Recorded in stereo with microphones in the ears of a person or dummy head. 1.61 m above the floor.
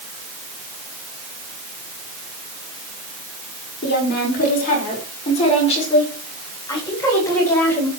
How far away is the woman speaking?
About 6 m.